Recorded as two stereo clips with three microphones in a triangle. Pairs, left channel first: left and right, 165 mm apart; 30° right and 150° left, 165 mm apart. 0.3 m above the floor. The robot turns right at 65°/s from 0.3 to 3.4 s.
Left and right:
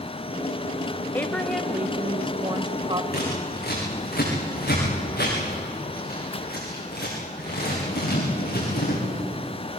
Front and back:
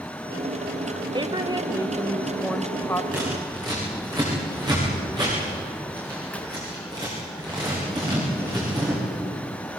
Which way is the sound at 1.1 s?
155° left.